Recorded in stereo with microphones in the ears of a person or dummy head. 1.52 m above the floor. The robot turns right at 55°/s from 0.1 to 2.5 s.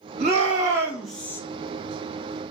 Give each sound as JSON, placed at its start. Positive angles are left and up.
{"t": 0.2, "sound": "a shout", "azimuth_deg": -50, "distance_m": 1.9}